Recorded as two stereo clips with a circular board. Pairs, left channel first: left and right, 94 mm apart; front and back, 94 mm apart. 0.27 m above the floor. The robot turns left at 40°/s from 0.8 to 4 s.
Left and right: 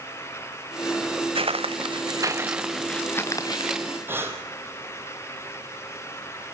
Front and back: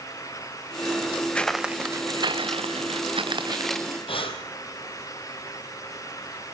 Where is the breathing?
20° right, 3 m.